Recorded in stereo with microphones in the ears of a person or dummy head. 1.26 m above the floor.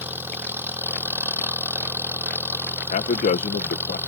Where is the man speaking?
35° left (ahead or behind).